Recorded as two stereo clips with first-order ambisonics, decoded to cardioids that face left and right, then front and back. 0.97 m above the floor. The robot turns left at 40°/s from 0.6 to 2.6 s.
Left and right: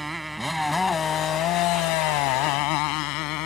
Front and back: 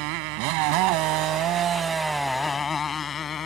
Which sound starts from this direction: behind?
A motorcycle, at 0.0 s.